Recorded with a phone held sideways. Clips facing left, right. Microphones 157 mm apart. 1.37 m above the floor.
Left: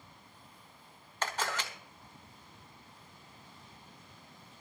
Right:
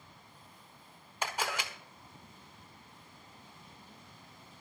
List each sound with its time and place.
1.2 s a camera shutter: 10° right (ahead or behind), 1.4 m